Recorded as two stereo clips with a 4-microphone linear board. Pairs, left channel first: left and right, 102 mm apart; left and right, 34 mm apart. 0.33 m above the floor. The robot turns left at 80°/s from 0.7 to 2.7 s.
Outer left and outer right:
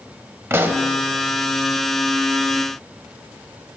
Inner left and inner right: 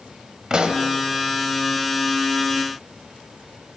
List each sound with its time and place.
0.5 s a pop: 20° right (ahead or behind), 0.6 m; by 0.9 s 35° right (ahead or behind), 0.6 m